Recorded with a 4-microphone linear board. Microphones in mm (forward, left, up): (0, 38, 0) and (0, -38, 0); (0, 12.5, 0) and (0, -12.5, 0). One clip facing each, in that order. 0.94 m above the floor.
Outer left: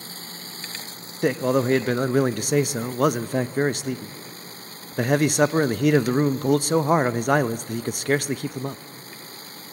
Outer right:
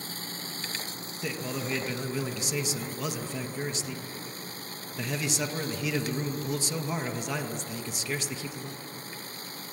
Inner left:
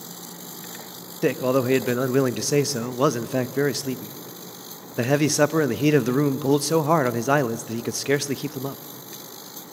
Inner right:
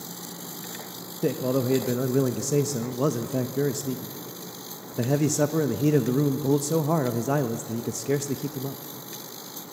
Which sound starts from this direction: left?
A man speaking, at 1.2 s.